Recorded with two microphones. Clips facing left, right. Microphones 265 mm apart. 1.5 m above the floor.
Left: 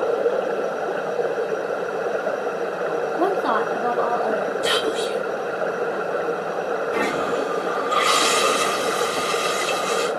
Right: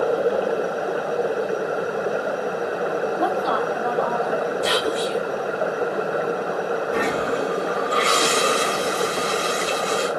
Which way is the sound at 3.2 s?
55° left (ahead or behind).